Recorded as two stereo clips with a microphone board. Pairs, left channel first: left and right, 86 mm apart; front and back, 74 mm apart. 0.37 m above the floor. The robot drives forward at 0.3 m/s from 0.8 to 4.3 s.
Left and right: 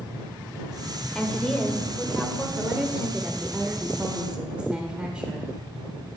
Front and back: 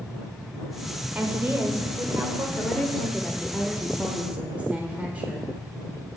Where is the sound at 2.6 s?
40° right, 0.9 m; by 5.5 s 150° right, 0.9 m.